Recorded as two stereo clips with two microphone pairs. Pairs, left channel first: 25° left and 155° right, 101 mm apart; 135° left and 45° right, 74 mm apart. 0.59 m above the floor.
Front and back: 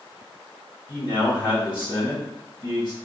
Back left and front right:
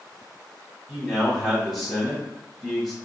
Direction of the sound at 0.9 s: 45° left.